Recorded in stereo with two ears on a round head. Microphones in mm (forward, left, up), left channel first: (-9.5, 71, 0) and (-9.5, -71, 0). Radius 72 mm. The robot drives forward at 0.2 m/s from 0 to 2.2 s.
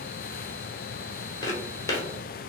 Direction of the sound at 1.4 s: 25° left (ahead or behind).